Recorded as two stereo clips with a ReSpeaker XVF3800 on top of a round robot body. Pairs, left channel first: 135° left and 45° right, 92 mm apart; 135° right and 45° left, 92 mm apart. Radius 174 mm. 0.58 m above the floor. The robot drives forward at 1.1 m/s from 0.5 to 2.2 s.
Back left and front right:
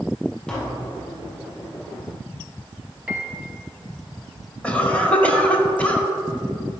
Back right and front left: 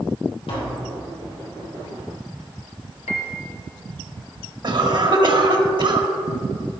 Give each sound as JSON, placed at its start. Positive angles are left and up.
{"t": 0.5, "sound": "tapping", "azimuth_deg": -145, "distance_m": 2.5}
{"t": 3.1, "sound": "a piano", "azimuth_deg": -120, "distance_m": 0.6}
{"t": 4.6, "sound": "a cough", "azimuth_deg": 60, "distance_m": 1.6}